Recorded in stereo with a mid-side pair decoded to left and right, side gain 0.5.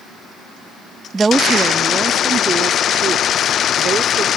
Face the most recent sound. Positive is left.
turn(degrees=-50)